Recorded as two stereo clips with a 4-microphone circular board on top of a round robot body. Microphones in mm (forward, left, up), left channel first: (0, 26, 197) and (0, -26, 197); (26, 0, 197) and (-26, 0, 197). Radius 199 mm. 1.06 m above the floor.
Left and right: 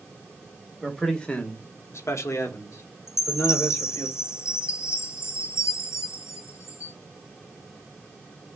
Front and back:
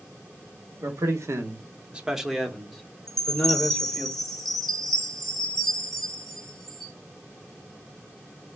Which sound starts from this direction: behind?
A man speaking, at 0.8 s.